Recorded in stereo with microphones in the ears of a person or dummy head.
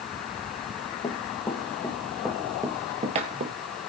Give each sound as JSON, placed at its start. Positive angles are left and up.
{"t": 1.0, "sound": "running footsteps", "side_deg": 25, "distance_m": 2.5}